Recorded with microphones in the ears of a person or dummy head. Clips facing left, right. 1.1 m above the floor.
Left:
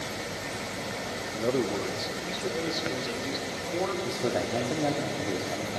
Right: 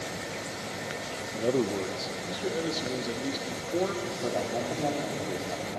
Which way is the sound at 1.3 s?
Centre (ahead or behind).